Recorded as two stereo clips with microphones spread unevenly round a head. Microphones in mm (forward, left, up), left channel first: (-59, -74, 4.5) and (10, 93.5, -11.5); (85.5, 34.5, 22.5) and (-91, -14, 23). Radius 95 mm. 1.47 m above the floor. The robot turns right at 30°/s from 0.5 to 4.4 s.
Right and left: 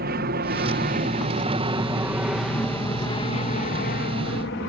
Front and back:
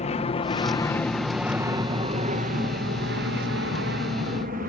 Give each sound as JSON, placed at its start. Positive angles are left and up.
{"t": 0.0, "sound": "an aircraft", "azimuth_deg": 60}